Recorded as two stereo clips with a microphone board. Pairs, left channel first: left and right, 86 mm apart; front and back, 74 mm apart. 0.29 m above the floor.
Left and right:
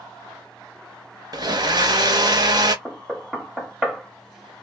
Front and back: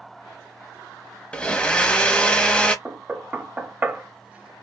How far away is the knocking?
About 1.0 m.